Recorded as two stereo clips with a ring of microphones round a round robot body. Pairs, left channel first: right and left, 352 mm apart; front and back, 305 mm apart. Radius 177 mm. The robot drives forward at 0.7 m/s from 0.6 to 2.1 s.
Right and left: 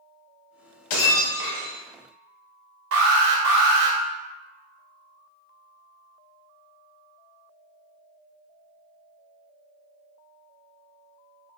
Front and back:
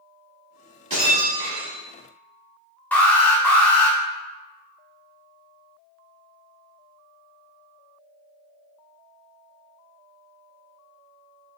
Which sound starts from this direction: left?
An alarm, at 2.9 s.